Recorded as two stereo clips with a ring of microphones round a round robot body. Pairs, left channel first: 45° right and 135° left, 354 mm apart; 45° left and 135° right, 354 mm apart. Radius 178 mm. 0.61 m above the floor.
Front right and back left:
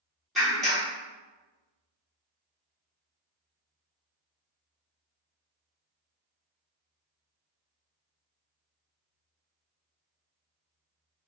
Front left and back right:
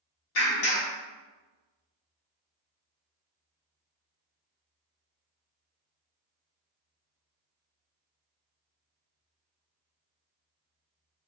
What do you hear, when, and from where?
0.3 s a clap: 45° left, 1.3 m